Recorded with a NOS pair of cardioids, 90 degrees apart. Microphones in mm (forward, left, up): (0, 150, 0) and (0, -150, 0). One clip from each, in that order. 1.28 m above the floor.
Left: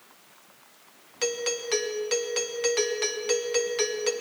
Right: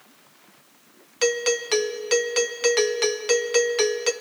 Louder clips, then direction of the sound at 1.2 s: Right 6 dB; 30° right.